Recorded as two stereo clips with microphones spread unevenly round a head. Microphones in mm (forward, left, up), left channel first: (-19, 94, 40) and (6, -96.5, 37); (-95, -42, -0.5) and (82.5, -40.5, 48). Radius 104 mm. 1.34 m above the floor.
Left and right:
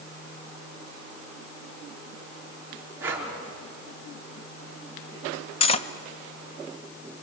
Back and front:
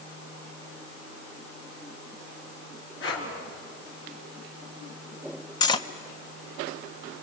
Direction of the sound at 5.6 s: 100° left.